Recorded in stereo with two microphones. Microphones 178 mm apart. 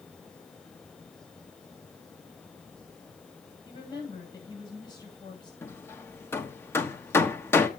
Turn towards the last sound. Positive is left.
turn(degrees=15)  # may be behind; listen again after turning